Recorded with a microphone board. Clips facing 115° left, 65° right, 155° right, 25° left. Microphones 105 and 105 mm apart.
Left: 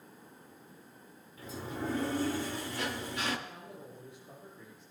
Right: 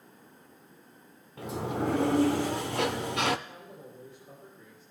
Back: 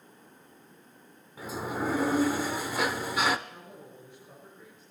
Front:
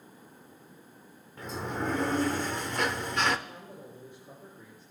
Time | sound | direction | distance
1.4 | a sliding door | 75° right | 0.7 m
3.5 | a man speaking | 15° right | 8.5 m